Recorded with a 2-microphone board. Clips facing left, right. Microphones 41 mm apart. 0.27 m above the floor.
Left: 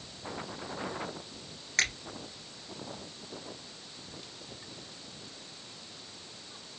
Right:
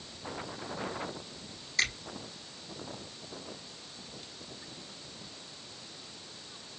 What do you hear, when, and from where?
1.8 s a finger snap: 55° left (ahead or behind), 3.5 m